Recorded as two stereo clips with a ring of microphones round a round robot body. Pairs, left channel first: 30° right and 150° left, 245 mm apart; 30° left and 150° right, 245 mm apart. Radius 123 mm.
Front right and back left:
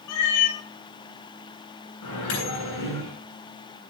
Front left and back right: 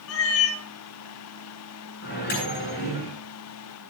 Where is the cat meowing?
5° right, 1.9 m.